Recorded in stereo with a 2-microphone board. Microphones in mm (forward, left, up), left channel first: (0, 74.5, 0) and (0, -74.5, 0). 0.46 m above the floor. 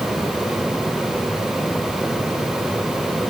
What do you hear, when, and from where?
Only background noise.